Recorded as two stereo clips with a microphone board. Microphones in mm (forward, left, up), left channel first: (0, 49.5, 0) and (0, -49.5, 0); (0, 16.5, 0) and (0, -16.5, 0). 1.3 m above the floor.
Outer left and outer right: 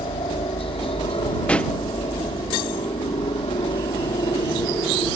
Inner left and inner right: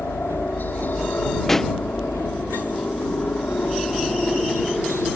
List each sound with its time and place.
0.0 s a helicopter: 70° left (ahead or behind)
1.5 s a pop: 10° left (ahead or behind)